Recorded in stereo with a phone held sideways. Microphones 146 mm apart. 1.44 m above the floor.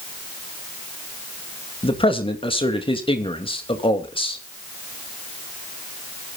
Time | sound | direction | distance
1.8 | a man speaking | 35° left (ahead or behind) | 2.5 m